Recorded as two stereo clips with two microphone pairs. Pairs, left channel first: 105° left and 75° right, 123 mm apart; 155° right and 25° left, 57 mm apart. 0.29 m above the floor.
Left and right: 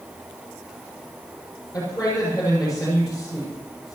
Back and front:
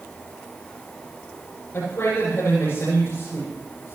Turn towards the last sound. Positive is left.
turn(degrees=160)